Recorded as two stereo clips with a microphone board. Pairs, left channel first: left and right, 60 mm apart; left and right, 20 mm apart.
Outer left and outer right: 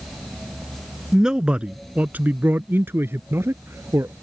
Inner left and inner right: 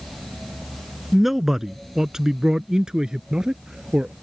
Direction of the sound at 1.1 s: 10° right (ahead or behind).